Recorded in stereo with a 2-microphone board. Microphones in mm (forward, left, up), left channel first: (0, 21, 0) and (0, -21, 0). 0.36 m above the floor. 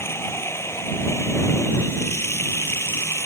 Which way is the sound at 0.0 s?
80° left.